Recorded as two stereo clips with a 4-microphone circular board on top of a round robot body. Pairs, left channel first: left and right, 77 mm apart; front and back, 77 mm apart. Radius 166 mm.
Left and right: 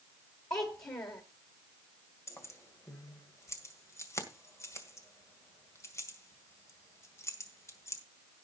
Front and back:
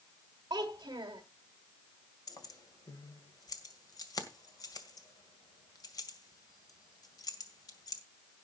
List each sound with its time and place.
0.5 s a child speaking: 135° left, 1.4 m
2.3 s keys jangling: 35° left, 2 m